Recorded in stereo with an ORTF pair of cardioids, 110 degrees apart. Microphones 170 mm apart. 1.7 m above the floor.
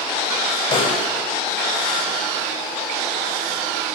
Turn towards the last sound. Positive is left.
turn(degrees=30)